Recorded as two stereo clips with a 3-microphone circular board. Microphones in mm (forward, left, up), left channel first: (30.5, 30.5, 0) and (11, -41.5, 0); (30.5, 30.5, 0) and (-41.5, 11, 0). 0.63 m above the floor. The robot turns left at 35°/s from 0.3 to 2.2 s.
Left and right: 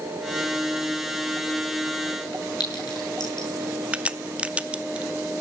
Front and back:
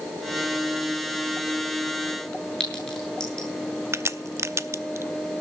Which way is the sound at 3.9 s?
165° right.